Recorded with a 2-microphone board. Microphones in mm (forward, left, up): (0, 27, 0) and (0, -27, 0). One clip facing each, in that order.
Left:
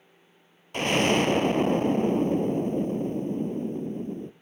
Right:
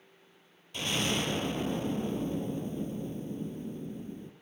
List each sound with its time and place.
0.7 s an explosion: 55° left (ahead or behind), 0.6 m